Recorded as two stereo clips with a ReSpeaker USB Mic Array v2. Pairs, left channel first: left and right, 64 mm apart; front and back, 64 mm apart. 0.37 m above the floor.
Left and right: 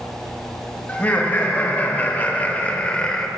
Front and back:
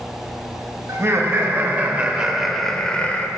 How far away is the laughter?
About 1.4 m.